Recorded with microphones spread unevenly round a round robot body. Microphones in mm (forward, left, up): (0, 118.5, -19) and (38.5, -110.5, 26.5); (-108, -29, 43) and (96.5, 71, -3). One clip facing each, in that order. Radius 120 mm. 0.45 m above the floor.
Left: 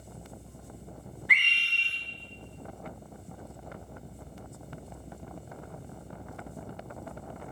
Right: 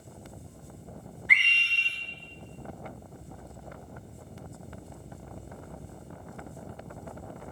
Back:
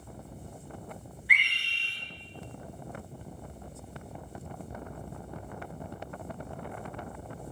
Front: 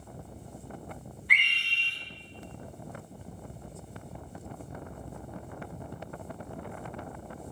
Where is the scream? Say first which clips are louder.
Right 1 dB, even; 70° right, 9 m.